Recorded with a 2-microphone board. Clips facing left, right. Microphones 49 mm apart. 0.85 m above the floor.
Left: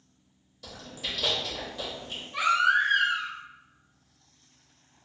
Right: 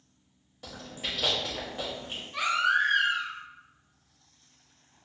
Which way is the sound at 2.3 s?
10° left (ahead or behind).